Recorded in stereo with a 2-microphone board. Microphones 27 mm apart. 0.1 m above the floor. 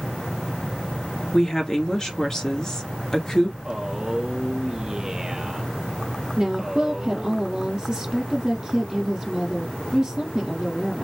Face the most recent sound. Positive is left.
turn(degrees=-35)  # may be behind; listen again after turning